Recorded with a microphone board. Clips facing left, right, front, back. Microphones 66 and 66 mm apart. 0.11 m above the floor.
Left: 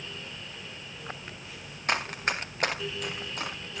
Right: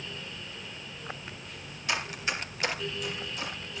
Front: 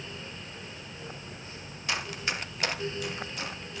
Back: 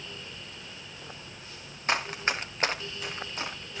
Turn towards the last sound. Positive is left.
turn(degrees=120)